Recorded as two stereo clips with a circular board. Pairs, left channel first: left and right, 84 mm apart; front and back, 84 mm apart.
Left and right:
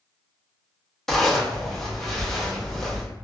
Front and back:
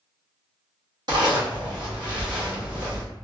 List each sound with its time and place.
1.1 s a zipper: 175° left, 0.9 m